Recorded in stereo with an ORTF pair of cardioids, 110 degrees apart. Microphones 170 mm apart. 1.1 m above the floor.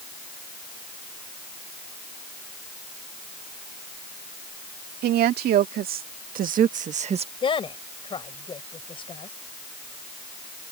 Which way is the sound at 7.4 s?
30° left.